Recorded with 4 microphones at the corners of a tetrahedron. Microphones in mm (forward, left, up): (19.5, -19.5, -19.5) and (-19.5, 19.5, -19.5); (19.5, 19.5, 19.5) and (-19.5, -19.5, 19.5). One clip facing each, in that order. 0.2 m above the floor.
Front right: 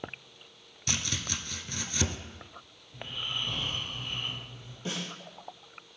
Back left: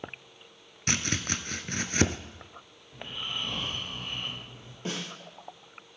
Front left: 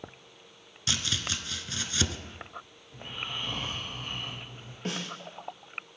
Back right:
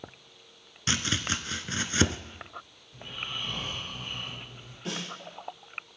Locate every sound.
0.9 s chopping: 170° left, 0.7 m
2.9 s snoring: 85° left, 5.5 m
4.8 s a snare drum: 85° left, 4.5 m